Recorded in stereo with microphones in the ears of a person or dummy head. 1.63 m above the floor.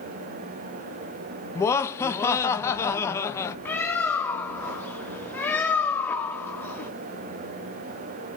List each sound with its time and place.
1.6 s laughter: 20° left (ahead or behind), 0.8 m
3.6 s a bird: 15° left (ahead or behind), 0.9 m